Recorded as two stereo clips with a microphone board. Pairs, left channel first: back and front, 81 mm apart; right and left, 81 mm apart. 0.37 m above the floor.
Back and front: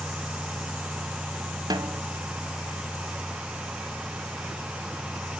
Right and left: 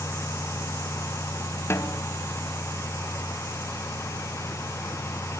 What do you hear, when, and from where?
1.7 s a snare drum: 35° right, 1.1 m